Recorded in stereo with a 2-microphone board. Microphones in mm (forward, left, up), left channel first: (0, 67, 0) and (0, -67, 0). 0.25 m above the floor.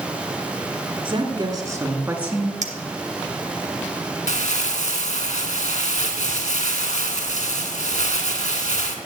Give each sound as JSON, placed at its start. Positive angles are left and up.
{"t": 1.1, "sound": "a woman speaking", "side_deg": -35, "distance_m": 3.0}
{"t": 2.6, "sound": "a clink", "side_deg": -65, "distance_m": 2.5}
{"t": 4.3, "sound": "crumpling", "side_deg": 60, "distance_m": 3.0}